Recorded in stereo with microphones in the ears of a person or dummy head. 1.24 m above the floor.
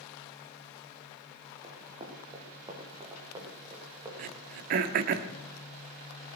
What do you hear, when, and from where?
1.6 s running footsteps: 20° right (ahead or behind), 3 m; by 4.1 s 10° right (ahead or behind), 6.5 m
4.2 s throat clearing: 50° right (ahead or behind), 0.9 m